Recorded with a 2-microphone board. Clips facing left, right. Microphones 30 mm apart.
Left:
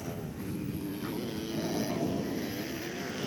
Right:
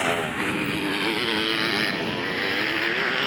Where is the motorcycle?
85° right; by 3.3 s 60° right (ahead or behind).